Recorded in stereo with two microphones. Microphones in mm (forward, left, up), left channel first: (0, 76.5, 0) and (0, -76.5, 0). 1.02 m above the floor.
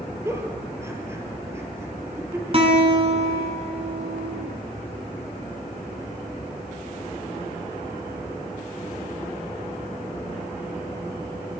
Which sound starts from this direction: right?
A guitar, at 2.5 s.